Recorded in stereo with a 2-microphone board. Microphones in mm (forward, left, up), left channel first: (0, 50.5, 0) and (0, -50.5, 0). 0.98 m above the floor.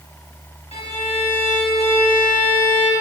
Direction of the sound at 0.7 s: 75° left (ahead or behind).